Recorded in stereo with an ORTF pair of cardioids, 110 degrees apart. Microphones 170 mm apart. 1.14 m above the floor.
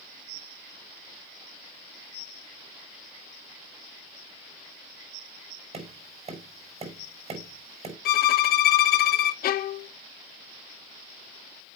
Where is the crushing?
No crushing in this recording.